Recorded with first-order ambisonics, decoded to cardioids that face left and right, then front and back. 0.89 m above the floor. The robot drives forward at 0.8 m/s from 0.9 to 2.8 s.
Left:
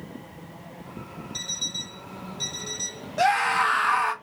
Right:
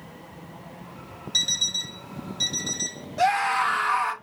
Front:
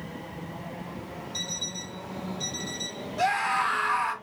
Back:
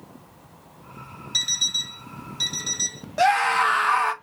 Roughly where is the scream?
Behind left.